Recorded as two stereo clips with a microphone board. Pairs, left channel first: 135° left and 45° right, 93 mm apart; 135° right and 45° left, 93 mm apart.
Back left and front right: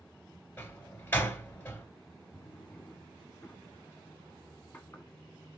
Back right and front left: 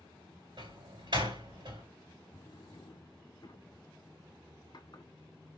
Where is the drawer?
160° right, 1.0 m.